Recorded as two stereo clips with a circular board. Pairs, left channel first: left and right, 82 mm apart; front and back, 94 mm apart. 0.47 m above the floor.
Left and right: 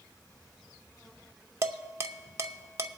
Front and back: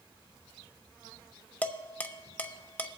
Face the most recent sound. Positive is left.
turn(degrees=-60)